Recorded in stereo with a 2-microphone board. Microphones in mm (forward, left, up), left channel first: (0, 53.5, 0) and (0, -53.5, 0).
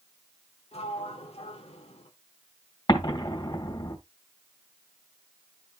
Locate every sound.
0.7 s a sliding door: 70° left (ahead or behind), 1.5 m
2.9 s an explosion: 45° left (ahead or behind), 2.5 m